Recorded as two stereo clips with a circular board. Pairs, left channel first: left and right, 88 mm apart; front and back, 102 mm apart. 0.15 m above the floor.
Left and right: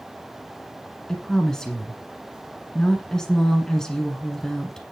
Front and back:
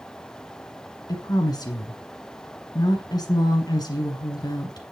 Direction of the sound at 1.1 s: 10° left.